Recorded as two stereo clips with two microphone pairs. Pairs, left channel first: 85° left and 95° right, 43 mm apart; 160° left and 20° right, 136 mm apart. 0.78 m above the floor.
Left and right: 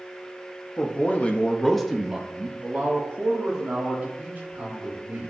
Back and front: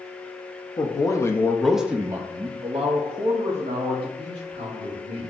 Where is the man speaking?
115° left, 0.8 m; by 5.3 s 55° right, 1.9 m.